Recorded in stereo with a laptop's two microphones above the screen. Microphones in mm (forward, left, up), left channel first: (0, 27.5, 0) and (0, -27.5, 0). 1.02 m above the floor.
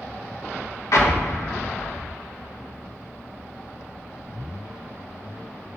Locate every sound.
0.9 s an explosion: 60° left (ahead or behind), 1.1 m